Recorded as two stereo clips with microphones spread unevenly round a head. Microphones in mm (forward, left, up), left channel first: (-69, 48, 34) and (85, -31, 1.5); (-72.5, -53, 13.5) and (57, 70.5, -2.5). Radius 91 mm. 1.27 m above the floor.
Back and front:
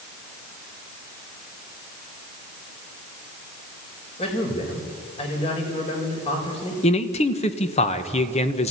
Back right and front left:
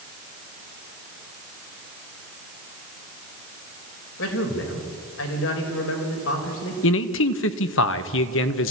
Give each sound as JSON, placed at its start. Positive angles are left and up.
{"t": 4.2, "sound": "a man speaking", "azimuth_deg": -150, "distance_m": 4.5}
{"t": 6.8, "sound": "a man speaking", "azimuth_deg": -150, "distance_m": 1.4}